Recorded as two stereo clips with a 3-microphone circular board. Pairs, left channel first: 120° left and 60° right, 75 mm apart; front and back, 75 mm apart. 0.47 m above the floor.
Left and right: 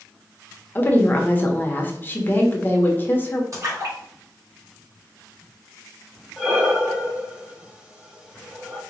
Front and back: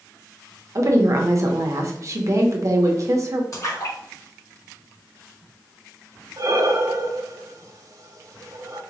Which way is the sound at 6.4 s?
140° right.